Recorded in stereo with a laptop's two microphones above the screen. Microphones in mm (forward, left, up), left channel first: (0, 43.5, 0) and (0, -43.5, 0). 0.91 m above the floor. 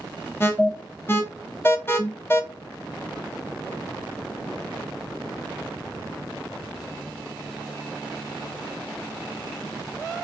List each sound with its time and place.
0.4 s an alarm: 25° left (ahead or behind), 1.0 m